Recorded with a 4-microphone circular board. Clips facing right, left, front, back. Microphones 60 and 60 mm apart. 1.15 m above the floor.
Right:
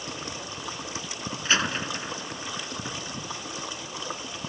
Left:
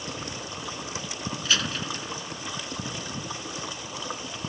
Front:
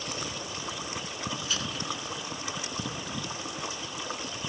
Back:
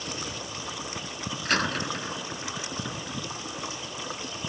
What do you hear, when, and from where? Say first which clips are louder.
1.4 s a door slam: right 3 dB, back 7 dB; 150° right